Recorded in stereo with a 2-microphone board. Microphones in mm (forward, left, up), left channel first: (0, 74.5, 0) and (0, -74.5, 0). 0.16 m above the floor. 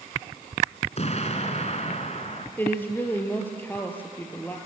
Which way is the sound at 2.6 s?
15° left (ahead or behind).